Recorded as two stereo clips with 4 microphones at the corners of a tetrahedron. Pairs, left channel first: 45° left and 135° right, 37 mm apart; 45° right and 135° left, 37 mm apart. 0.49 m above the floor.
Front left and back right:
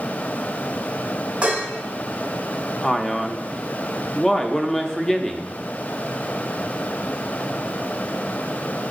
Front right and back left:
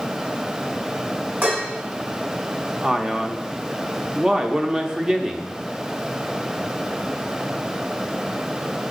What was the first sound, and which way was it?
Dishes clattering, 165° left.